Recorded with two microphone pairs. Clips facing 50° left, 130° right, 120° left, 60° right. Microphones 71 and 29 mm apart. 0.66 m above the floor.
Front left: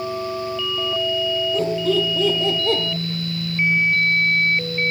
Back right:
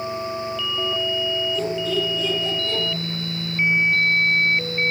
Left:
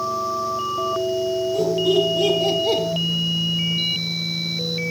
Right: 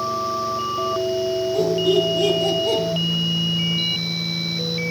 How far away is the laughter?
About 2.5 m.